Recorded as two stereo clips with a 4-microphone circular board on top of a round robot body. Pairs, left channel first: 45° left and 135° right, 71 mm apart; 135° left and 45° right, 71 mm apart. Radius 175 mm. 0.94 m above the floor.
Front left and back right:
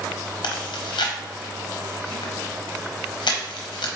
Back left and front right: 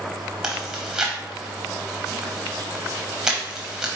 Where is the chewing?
35° left, 0.7 m.